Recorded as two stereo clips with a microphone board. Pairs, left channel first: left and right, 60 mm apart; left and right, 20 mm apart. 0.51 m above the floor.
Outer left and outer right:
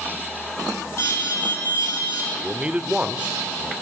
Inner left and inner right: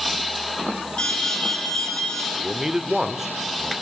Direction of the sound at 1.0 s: 50° left (ahead or behind).